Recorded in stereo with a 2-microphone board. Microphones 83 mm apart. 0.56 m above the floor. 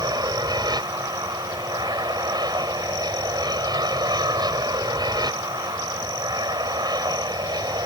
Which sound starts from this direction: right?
An aircraft, at 0.0 s.